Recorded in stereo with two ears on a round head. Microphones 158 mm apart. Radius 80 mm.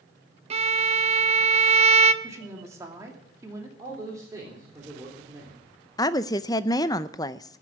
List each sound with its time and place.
0.5 s a violin: 35° right (ahead or behind), 0.7 m
2.2 s a woman speaking: 15° right (ahead or behind), 2.5 m
3.8 s a man speaking: 20° right (ahead or behind), 3.5 m
6.0 s a woman speaking: 20° left (ahead or behind), 0.5 m